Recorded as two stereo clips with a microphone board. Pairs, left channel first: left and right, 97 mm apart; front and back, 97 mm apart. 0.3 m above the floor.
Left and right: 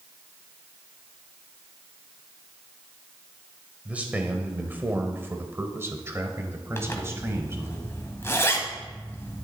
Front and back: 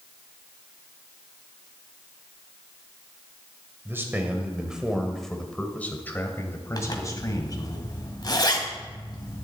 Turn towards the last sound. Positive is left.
turn(degrees=30)